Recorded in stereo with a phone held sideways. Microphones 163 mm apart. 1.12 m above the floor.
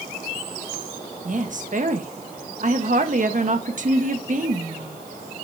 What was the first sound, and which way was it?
A woman speaking, 55° right (ahead or behind).